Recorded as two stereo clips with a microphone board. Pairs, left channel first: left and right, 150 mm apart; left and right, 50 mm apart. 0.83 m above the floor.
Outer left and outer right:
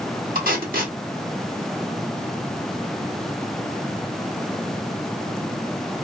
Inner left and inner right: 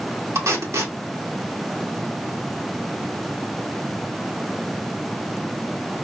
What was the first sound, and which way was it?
Tape being pulled, 75° right (ahead or behind).